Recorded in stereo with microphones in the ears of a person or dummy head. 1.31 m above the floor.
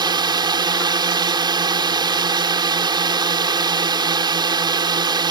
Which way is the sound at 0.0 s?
15° right (ahead or behind).